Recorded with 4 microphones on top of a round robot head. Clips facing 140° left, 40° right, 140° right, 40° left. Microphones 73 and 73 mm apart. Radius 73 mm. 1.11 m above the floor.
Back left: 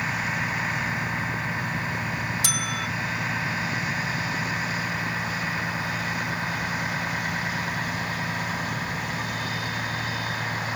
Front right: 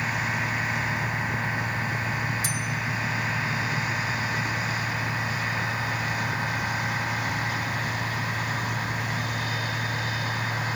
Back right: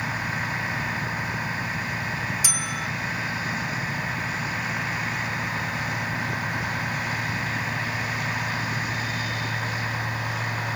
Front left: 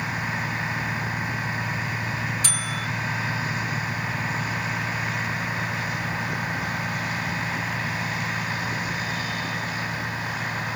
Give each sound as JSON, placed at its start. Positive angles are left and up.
{"t": 2.4, "sound": "a bell", "azimuth_deg": 140, "distance_m": 0.7}